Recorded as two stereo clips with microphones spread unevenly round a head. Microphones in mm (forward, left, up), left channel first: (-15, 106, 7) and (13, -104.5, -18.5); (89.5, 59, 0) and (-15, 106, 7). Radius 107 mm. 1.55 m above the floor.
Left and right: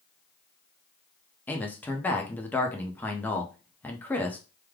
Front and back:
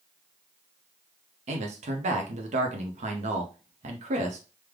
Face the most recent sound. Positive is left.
turn(degrees=175)